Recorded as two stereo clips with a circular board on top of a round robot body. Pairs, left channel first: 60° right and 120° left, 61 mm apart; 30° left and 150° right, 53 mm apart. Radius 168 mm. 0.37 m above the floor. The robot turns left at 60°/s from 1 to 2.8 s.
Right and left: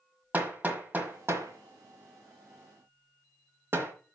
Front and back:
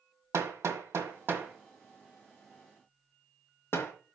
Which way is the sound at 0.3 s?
Straight behind.